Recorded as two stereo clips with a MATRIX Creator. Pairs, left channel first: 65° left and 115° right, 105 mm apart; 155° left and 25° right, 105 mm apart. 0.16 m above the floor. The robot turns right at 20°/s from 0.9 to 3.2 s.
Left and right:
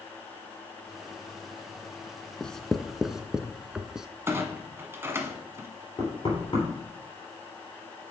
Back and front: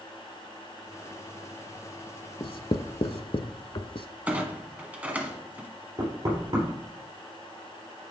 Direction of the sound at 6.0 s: 25° left.